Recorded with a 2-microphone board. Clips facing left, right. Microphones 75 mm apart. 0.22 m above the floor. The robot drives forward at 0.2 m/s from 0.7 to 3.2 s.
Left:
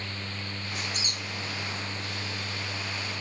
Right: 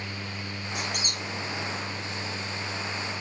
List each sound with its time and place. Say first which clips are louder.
0.8 s a squeak: right 4 dB; 65° right (ahead or behind), 1.1 m; by 1.2 s 60° right (ahead or behind), 1.1 m